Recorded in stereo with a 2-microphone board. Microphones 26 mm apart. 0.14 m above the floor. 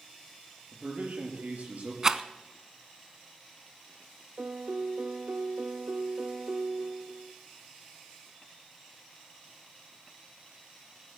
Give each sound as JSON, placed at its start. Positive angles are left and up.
{"t": 0.7, "sound": "a man speaking", "side_deg": -60, "distance_m": 3.5}
{"t": 2.0, "sound": "a rattle", "side_deg": -20, "distance_m": 0.6}
{"t": 4.4, "sound": "a piano", "side_deg": -70, "distance_m": 0.9}